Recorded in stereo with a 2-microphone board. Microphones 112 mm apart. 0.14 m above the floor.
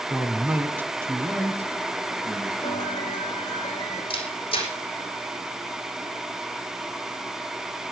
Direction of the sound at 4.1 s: 50° left (ahead or behind).